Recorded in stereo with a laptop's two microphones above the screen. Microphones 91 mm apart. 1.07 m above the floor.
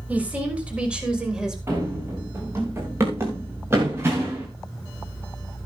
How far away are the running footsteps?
About 6 m.